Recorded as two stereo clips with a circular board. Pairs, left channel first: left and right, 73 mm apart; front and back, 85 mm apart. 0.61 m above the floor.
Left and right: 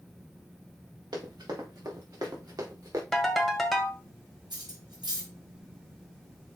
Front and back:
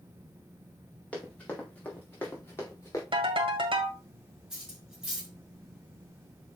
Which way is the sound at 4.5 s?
95° right.